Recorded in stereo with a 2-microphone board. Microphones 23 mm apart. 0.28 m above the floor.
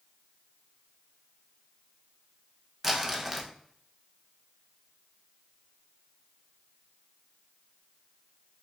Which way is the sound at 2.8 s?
10° right (ahead or behind).